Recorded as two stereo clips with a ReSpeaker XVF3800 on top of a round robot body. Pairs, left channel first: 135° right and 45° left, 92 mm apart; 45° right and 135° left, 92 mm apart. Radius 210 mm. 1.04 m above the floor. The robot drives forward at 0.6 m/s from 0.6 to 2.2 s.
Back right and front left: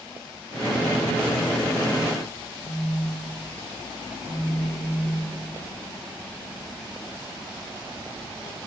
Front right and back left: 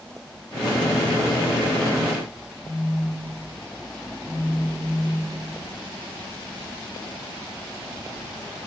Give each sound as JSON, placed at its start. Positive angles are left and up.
{"t": 2.6, "sound": "a phone buzzing", "azimuth_deg": -105, "distance_m": 2.5}